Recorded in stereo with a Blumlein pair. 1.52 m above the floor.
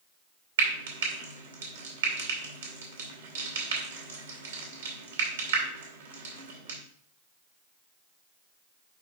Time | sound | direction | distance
0.6 | frying | 65° right | 2 m